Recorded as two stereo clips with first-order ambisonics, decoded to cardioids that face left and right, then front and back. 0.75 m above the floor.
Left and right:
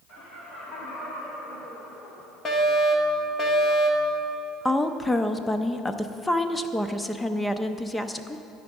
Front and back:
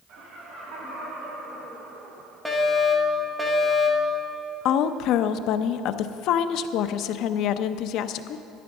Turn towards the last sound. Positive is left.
turn(degrees=10)